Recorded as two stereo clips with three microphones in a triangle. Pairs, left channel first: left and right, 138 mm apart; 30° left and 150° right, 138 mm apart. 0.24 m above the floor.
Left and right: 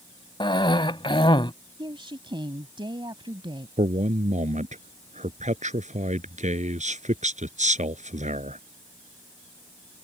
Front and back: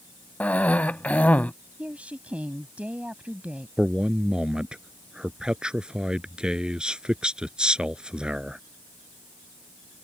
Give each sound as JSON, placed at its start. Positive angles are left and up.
{"t": 0.4, "sound": "a cough", "azimuth_deg": 100}
{"t": 1.8, "sound": "a woman speaking", "azimuth_deg": -75}
{"t": 3.8, "sound": "a man speaking", "azimuth_deg": -65}